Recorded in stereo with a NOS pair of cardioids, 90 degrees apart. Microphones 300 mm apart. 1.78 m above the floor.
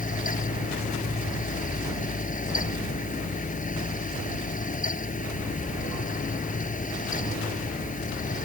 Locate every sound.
0.0 s a fan: 25° left